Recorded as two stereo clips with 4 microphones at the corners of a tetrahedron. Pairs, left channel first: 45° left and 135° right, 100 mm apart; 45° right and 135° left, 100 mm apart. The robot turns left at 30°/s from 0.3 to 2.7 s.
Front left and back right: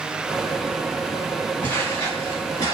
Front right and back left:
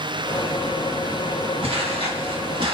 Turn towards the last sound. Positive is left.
turn(degrees=100)